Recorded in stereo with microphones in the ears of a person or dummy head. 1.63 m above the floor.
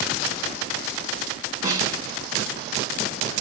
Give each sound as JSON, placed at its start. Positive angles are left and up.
{"t": 1.6, "sound": "a snare drum", "side_deg": -25, "distance_m": 3.0}